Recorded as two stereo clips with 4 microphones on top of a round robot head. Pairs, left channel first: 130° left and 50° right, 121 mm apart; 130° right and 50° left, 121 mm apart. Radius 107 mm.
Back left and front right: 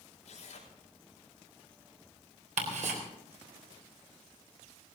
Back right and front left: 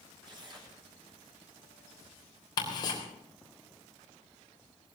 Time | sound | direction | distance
0.2 | tearing paper | 100° left | 5.5 m
2.6 | ticking | 75° right | 3.5 m